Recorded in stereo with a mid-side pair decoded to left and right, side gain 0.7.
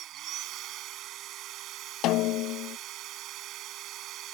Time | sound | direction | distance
0.0 | a machine running | 50° right | ?
2.0 | a snare drum | 60° left | ?